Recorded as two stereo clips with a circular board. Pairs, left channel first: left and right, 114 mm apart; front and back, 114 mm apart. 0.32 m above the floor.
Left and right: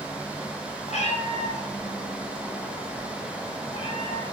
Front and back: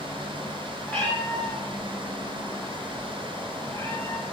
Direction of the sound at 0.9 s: 80° left.